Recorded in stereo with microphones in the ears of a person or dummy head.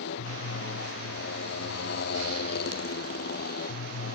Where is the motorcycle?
75° left (ahead or behind); by 4.2 s 60° left (ahead or behind).